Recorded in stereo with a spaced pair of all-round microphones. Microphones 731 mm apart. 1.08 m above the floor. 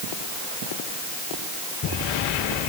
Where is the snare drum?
I don't hear a snare drum.